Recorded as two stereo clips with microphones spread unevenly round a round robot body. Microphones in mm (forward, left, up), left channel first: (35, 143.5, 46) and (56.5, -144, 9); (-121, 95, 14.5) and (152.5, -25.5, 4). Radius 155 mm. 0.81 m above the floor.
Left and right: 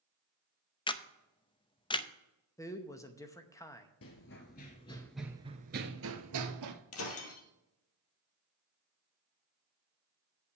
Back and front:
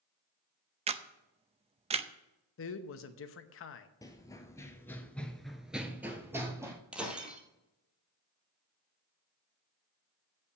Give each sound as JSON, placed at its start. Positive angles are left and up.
{"t": 0.9, "sound": "a camera shutter", "azimuth_deg": 20, "distance_m": 0.6}
{"t": 2.6, "sound": "a man speaking", "azimuth_deg": 180, "distance_m": 0.8}
{"t": 4.0, "sound": "running footsteps", "azimuth_deg": 80, "distance_m": 1.2}
{"t": 6.9, "sound": "breaking glass", "azimuth_deg": 65, "distance_m": 1.8}